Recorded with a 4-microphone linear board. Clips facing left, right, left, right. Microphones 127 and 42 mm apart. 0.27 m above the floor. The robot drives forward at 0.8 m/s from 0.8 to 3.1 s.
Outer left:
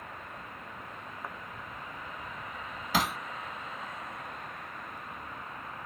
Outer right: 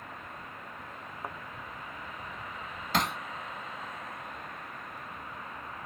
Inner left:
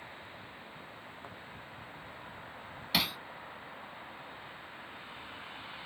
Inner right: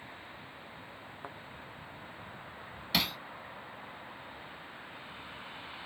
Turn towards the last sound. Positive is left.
turn(degrees=0)  # may be behind; listen again after turning